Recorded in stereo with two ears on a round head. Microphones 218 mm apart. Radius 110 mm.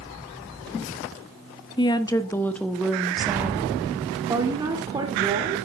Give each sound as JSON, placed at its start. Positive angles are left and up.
{"t": 1.8, "sound": "a woman speaking", "side_deg": 20, "distance_m": 1.0}